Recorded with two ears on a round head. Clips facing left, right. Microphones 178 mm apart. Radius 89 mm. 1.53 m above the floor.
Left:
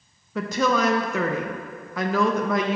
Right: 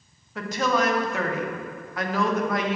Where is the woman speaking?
75° left (ahead or behind), 0.7 m.